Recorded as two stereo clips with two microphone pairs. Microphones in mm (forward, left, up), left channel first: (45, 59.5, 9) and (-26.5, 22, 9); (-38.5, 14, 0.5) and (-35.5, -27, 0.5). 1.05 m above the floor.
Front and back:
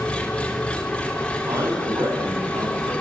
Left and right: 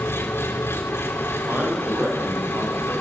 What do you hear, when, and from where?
0.0 s an engine running: 105° left, 3 m
1.4 s a man speaking: 115° right, 9 m